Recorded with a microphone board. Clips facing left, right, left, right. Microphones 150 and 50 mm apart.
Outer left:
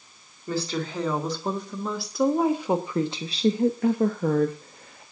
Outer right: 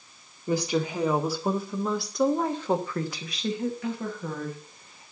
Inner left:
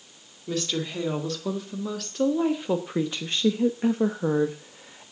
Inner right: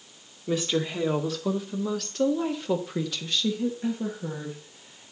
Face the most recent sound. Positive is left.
turn(degrees=80)